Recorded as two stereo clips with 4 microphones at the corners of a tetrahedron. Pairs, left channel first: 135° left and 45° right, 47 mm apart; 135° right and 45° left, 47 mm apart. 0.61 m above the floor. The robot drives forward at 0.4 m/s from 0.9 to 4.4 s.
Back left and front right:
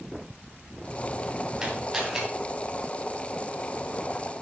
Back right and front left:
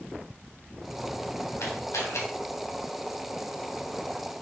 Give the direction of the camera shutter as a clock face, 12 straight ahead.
4 o'clock.